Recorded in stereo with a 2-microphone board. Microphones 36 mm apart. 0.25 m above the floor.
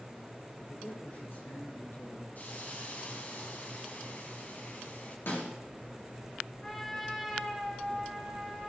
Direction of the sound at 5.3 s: 75° left (ahead or behind).